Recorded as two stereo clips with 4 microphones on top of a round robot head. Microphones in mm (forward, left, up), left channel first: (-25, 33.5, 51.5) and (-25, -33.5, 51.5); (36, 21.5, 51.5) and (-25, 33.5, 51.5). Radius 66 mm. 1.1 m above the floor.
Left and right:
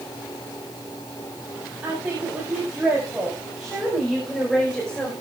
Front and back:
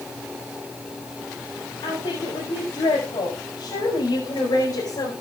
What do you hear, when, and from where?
1.8 s a woman speaking: 25° right, 7.5 m; by 5.1 s 10° left, 4.5 m